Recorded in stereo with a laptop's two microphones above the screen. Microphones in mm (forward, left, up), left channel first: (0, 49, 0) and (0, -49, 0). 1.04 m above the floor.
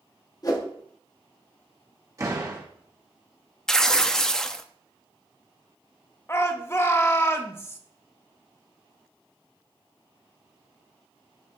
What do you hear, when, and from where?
0.4 s a whoosh: 40° left (ahead or behind), 1.2 m
2.2 s a door slam: 35° right (ahead or behind), 1.4 m
3.7 s tearing paper: 5° left (ahead or behind), 0.6 m
6.3 s a shout: 25° left (ahead or behind), 1.2 m